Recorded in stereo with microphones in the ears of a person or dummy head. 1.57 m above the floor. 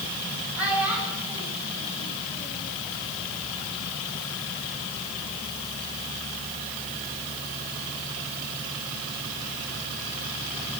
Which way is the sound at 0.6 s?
5° right (ahead or behind).